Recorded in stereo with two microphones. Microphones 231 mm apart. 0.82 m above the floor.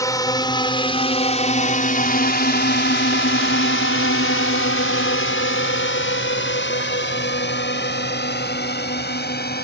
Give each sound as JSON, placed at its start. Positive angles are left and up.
{"t": 0.0, "sound": "a drone", "side_deg": 15}